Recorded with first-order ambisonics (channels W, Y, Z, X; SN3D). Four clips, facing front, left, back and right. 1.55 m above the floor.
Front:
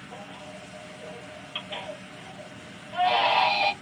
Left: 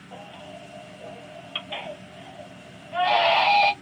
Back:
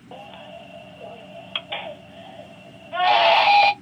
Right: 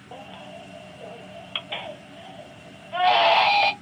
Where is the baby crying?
150° right, 0.7 m.